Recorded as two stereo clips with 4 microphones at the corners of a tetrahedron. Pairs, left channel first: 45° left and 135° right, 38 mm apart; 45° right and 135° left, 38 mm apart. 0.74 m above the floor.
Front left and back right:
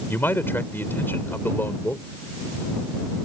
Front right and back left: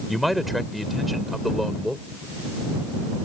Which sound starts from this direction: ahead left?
A man speaking, at 0.1 s.